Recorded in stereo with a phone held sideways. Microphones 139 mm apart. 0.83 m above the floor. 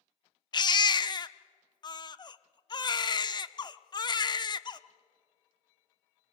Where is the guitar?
No guitar in this recording.